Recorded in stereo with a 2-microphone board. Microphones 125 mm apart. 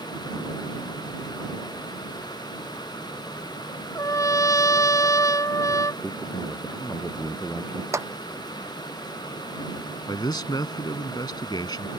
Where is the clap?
25° right (ahead or behind).